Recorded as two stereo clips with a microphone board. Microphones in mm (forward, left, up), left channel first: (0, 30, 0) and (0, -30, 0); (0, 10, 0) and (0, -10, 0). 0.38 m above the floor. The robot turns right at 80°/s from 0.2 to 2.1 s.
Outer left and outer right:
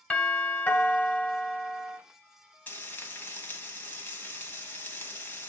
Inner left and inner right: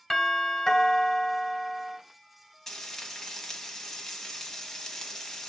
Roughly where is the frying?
Left.